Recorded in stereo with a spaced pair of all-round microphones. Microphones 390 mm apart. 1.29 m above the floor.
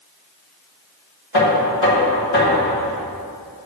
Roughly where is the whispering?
No whispering in this recording.